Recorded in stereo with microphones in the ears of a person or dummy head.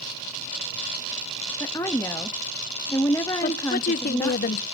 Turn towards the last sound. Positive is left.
turn(degrees=50)  # may be behind; listen again after turning